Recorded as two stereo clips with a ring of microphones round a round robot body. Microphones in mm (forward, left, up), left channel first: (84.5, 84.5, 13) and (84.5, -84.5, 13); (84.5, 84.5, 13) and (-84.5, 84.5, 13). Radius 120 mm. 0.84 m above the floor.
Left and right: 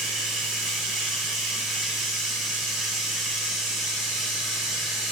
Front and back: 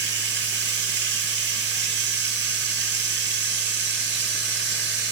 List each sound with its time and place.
0.0 s running water: straight behind, 1.3 m